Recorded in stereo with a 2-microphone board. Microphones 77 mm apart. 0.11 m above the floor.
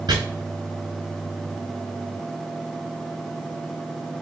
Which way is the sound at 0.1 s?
60° right (ahead or behind).